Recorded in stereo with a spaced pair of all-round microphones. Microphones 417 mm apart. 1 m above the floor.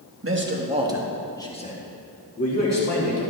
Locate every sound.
0.2 s a man speaking: 30° right (ahead or behind), 1.3 m; by 3.2 s 45° left (ahead or behind), 2 m